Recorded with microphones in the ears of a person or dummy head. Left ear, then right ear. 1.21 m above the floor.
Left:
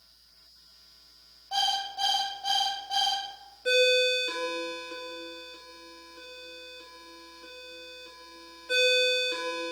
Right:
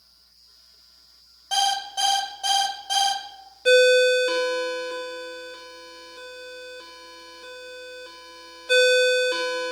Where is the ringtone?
20° right (ahead or behind), 0.7 m.